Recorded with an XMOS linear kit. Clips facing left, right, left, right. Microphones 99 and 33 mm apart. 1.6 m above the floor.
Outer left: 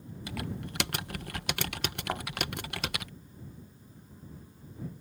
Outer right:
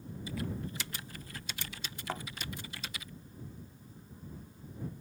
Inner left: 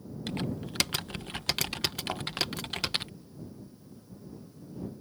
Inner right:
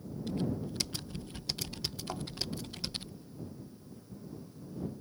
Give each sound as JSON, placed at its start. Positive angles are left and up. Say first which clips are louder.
{"t": 0.3, "sound": "typing on a keyboard", "louder": "outer left 1 dB, even", "side_deg": 70}
{"t": 2.1, "sound": "a thud", "louder": "outer left 3 dB, inner left 4 dB", "side_deg": 20}